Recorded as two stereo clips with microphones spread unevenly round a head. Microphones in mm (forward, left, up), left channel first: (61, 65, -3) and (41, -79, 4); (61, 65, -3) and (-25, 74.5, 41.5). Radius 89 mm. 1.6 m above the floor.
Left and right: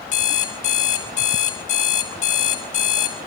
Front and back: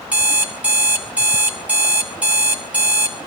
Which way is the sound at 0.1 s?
125° left.